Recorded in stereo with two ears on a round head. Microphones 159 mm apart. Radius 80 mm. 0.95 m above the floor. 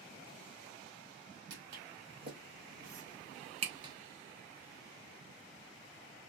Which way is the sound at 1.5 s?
65° right (ahead or behind).